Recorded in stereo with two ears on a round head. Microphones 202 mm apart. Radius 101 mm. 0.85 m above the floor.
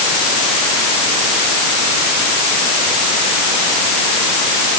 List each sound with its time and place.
Only background noise.